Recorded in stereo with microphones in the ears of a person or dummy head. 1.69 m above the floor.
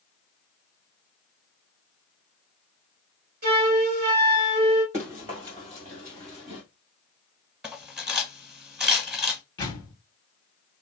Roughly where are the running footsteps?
Centre.